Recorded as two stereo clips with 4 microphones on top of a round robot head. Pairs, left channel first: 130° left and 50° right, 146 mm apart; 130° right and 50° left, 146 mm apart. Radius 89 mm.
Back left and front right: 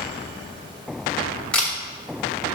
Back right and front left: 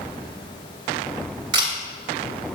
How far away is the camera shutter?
About 1.7 m.